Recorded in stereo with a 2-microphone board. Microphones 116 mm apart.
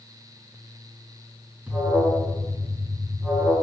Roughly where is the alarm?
Centre.